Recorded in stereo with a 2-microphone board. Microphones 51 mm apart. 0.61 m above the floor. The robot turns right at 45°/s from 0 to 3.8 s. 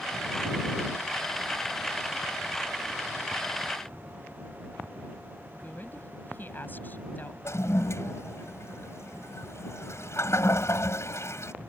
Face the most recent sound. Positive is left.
turn(degrees=65)  # may be behind; listen again after turning